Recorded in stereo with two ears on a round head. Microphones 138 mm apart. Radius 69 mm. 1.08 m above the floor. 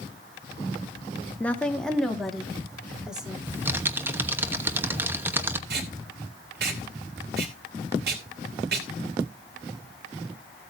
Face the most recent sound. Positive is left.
turn(degrees=-70)  # may be behind; listen again after turning